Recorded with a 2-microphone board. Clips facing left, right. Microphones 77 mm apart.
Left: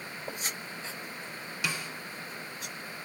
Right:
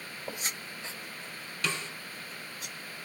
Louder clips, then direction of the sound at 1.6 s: Right 1 dB; 10° left (ahead or behind).